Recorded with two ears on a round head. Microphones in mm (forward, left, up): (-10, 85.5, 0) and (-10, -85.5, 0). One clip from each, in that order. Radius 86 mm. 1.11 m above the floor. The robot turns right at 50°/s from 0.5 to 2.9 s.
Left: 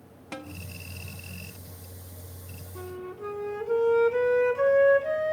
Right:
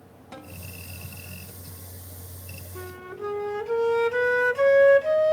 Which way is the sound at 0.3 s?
80° left.